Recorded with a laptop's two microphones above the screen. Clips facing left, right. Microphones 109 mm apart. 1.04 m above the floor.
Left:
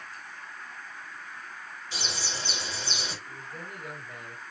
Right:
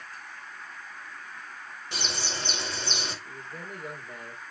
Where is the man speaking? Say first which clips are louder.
Right 1 dB; 30° right (ahead or behind), 4 m.